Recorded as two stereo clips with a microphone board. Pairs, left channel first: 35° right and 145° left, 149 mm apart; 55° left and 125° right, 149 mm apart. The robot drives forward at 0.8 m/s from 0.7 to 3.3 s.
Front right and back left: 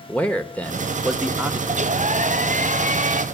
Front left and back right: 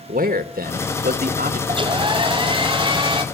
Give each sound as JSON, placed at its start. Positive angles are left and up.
{"t": 0.1, "sound": "a man speaking", "azimuth_deg": -115, "distance_m": 1.6}
{"t": 1.7, "sound": "a hair dryer", "azimuth_deg": 180, "distance_m": 0.5}